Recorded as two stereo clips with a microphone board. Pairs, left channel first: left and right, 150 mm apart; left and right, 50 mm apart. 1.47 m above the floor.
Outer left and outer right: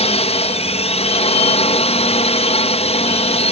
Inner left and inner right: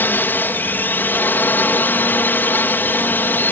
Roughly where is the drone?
Left.